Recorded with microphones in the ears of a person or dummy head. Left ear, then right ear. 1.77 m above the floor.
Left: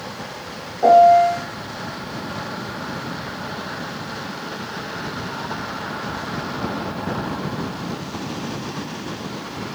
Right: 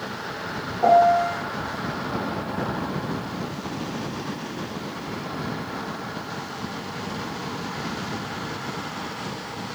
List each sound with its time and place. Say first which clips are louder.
0.8 s a piano: left 6 dB; 10° left (ahead or behind), 0.8 m